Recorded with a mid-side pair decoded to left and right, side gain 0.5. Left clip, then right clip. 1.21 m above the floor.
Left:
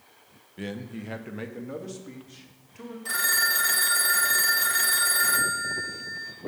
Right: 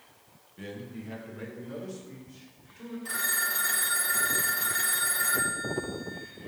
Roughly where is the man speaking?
Ahead left.